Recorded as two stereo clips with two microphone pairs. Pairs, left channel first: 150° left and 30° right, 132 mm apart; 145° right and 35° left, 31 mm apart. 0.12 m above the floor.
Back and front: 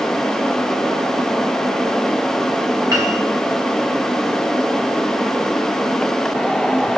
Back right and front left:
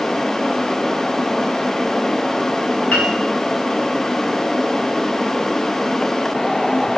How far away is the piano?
About 3.5 m.